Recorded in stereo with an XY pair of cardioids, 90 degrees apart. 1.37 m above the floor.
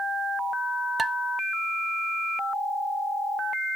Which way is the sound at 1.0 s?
35° right.